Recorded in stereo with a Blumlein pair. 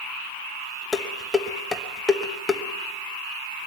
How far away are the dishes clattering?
About 1.1 m.